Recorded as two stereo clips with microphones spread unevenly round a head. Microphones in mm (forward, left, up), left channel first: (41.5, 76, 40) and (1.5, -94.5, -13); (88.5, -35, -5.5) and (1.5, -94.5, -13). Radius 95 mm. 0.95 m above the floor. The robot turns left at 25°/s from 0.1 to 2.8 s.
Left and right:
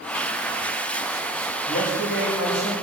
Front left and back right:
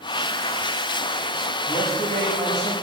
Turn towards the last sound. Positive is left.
turn(degrees=105)